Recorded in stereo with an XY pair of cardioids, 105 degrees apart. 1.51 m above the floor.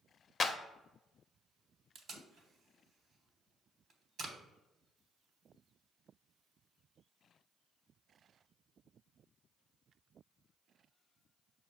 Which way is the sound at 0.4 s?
35° left.